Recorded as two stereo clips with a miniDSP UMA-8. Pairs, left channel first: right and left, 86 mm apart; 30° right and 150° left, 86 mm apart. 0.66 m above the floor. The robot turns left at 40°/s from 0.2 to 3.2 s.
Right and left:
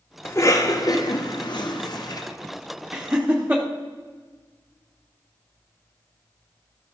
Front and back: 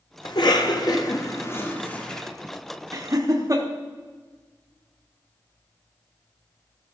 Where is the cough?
35° right, 1.4 m; by 2.3 s 115° right, 1.4 m.